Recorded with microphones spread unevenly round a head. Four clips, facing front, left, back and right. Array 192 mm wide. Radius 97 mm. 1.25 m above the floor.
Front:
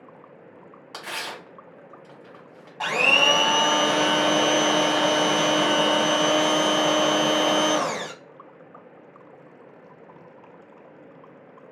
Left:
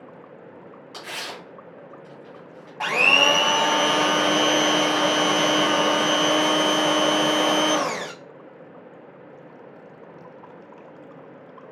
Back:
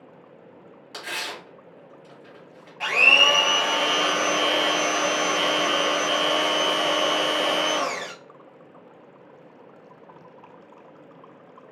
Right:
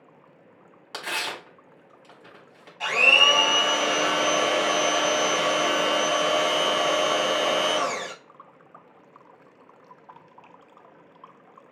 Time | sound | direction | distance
0.9 | tearing paper | 75° right | 2.5 m
2.8 | a blender | 55° left | 0.6 m